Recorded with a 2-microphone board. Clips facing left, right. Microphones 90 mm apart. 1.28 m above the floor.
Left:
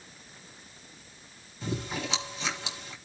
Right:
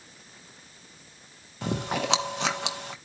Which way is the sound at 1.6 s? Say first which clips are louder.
Right 5 dB; 70° right (ahead or behind).